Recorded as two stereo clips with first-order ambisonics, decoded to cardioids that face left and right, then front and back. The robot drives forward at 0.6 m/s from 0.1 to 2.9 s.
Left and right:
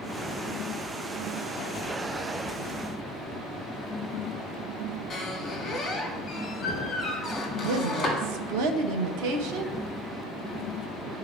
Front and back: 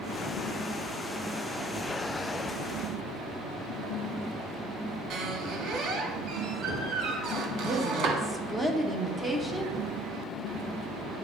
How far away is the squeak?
About 1.4 m.